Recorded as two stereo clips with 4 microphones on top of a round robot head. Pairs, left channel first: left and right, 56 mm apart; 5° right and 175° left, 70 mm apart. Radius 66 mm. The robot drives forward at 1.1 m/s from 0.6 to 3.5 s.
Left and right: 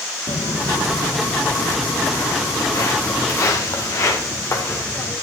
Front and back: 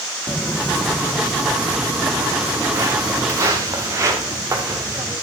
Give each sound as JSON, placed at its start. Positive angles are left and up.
{"t": 0.3, "sound": "footsteps", "azimuth_deg": 80, "distance_m": 3.0}